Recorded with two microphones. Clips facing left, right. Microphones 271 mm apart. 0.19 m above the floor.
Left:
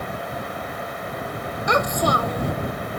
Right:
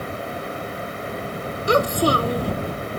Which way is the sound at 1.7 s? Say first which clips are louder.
Right 4 dB; 35° right (ahead or behind).